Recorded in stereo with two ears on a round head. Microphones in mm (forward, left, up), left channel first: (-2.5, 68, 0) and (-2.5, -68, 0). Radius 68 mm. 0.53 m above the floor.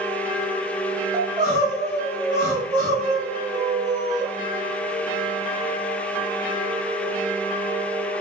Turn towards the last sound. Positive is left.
turn(degrees=-30)  # may be behind; listen again after turning